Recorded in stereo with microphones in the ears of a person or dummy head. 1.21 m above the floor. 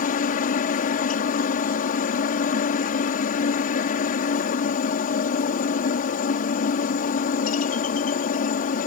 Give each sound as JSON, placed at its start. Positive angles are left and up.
{"t": 0.0, "sound": "a helicopter", "side_deg": 45}